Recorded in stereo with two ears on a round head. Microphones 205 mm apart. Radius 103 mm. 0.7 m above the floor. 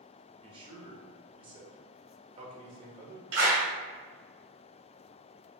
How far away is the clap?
About 2.0 m.